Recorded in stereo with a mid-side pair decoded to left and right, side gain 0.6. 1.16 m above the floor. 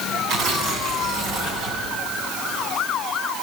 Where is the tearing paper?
65° right, 8 m.